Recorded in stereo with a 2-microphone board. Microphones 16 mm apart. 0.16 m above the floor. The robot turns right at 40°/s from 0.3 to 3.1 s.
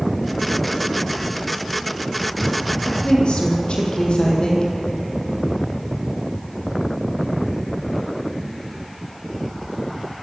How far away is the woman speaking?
About 6 m.